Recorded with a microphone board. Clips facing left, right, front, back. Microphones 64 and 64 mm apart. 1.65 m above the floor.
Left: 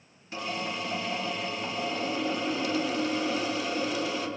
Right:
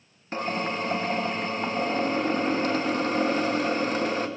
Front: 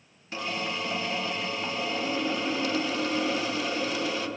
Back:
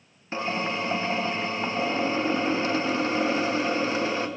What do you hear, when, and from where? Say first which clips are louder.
0.3 s a drill: right 5 dB, back 4 dB; 125° right, 1.0 m